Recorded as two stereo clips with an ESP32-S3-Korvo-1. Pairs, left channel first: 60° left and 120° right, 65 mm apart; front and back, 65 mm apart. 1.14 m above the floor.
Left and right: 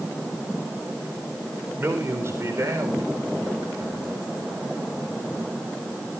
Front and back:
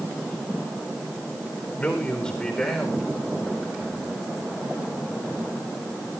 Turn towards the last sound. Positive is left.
turn(degrees=-105)